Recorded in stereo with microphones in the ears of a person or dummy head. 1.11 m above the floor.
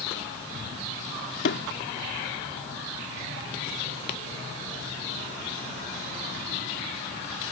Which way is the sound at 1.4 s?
65° left (ahead or behind).